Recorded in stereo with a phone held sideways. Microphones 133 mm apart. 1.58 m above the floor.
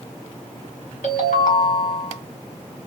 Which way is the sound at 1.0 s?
65° left (ahead or behind).